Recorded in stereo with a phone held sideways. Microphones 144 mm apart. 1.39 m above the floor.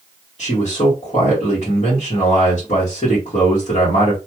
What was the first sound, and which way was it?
A man speaking, 55° left (ahead or behind).